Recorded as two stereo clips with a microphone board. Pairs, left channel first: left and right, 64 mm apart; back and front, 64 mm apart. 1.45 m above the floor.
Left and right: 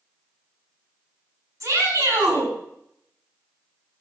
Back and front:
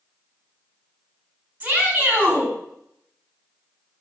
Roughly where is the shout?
Ahead right.